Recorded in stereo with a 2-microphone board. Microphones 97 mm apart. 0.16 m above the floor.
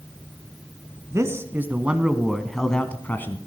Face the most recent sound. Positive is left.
turn(degrees=25)  # may be behind; listen again after turning